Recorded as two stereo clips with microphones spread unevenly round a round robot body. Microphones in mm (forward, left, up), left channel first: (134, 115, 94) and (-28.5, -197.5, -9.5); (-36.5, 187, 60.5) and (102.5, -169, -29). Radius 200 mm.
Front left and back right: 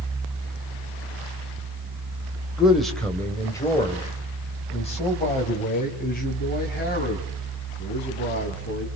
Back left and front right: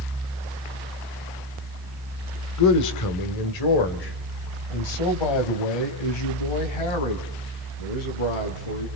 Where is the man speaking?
165° left, 1.8 m; by 8.9 s 130° left, 5.5 m.